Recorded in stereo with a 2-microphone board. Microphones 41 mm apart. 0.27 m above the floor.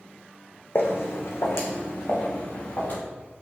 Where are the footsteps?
65° left (ahead or behind), 0.9 m; by 3.0 s 60° left (ahead or behind), 2 m.